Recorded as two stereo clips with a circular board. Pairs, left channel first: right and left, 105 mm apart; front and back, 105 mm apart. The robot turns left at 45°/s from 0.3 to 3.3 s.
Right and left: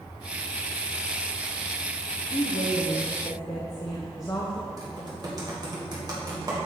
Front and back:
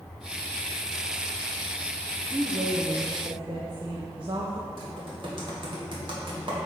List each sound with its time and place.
2.3 s a woman speaking: 100° right, 0.8 m; by 4.7 s 145° right, 0.8 m
4.8 s typing on a keyboard: 140° left, 1.7 m